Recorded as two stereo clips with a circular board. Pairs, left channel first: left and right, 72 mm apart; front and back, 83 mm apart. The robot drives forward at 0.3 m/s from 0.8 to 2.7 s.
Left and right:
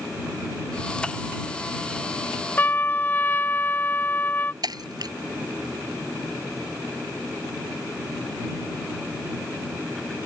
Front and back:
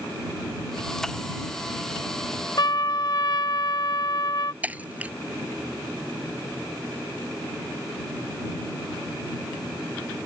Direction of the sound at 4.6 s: 110° right.